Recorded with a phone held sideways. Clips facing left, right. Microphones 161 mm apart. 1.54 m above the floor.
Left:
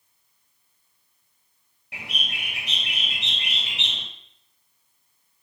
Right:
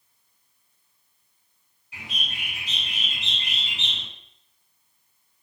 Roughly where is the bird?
Left.